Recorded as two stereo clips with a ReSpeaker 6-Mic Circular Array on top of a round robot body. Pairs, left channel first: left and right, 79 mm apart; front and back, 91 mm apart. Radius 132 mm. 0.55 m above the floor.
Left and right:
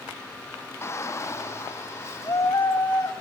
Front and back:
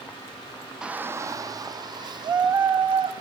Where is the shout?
105° left, 1.0 m; by 3.1 s 150° left, 4 m.